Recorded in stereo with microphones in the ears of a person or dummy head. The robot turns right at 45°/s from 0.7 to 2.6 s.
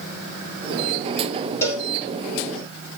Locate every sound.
1.6 s a cowbell: 10° left (ahead or behind), 5.5 m; by 1.9 s 20° left (ahead or behind), 5.5 m